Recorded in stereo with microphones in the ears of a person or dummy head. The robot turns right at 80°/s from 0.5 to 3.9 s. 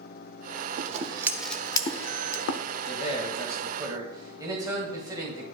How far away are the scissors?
About 0.5 m.